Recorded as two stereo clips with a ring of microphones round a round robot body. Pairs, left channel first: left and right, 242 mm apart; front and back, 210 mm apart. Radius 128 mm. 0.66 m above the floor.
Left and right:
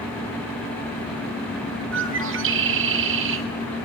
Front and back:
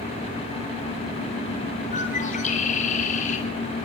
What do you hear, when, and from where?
1.9 s a bird: 55° right, 3 m